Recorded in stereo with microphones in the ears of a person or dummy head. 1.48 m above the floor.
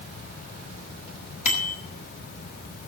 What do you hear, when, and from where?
1.4 s a bicycle bell: 45° left (ahead or behind), 6 m